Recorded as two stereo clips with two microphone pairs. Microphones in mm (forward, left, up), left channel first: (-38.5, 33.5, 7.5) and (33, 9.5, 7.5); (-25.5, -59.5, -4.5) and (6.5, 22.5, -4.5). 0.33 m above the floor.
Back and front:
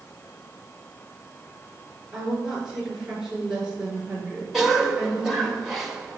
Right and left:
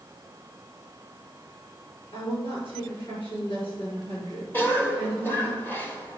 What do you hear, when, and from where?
2.1 s a woman speaking: 100° right, 4.5 m
4.5 s a cough: 100° right, 1.3 m